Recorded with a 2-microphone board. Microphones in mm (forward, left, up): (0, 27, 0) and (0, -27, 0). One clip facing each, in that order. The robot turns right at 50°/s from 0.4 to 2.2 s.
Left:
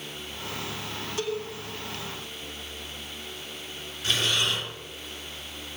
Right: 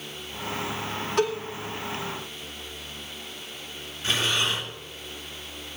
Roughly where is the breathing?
Right.